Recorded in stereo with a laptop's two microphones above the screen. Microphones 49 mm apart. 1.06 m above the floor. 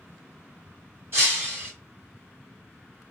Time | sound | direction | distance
1.1 | breaking glass | 50° right (ahead or behind) | 1.6 m